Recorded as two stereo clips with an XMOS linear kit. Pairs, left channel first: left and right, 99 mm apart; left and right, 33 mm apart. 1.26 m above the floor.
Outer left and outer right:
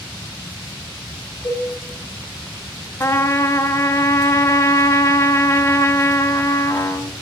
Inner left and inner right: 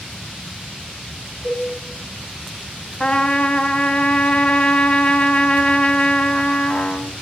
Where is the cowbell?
55° left (ahead or behind), 3 m.